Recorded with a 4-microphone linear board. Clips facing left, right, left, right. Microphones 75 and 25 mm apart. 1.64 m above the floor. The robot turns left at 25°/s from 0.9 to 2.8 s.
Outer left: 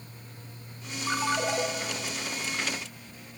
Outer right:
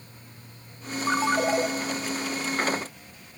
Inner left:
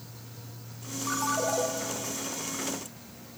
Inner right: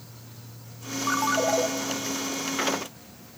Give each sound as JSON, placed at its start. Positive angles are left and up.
{"t": 1.1, "sound": "a ringtone", "side_deg": -25, "distance_m": 0.6}